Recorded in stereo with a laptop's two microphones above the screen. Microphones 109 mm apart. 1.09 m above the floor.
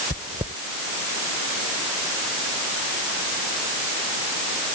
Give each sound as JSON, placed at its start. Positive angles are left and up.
{"t": 0.1, "sound": "chewing", "side_deg": -85}